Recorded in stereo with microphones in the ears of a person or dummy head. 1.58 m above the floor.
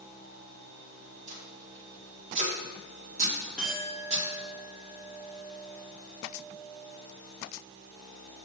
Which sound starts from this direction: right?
Tape being pulled, at 1.3 s.